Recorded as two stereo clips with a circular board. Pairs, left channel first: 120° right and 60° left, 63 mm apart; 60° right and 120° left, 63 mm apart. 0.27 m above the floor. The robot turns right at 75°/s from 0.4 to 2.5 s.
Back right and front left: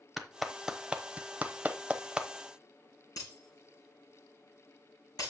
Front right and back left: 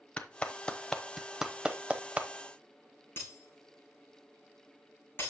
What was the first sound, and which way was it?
A clap, 25° right.